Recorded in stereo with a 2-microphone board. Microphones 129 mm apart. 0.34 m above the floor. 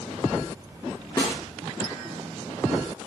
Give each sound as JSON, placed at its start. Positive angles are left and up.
{"t": 1.2, "sound": "a snare drum", "side_deg": 30, "distance_m": 3.5}